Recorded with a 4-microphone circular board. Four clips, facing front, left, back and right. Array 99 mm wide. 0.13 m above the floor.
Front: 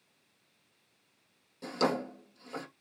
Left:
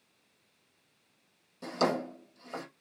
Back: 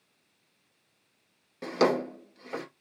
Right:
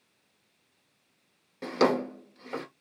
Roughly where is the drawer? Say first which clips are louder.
Right 5 dB, back 5 dB; behind right.